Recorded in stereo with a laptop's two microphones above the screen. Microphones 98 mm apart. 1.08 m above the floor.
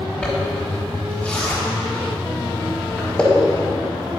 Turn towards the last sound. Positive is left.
turn(degrees=10)  # may be behind; listen again after turning